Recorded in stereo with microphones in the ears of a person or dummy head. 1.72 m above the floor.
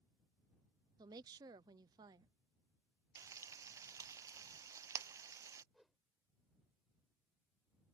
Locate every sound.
1.0 s a woman speaking: 25° right (ahead or behind)
3.1 s frying: 20° right (ahead or behind)
5.7 s a whoosh: centre (ahead or behind)